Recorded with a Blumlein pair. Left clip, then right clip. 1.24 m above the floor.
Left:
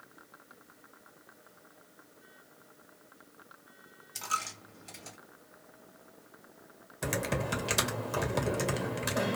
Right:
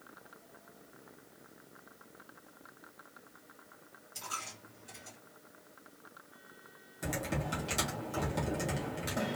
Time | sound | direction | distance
4.2 | a dropped coin | 65° left | 1.9 m
7.0 | typing on a keyboard | 65° left | 1.2 m